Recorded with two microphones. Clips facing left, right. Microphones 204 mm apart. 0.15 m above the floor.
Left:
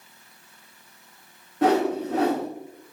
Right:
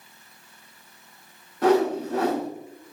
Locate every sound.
1.6 s a whoosh: 80° left, 4.5 m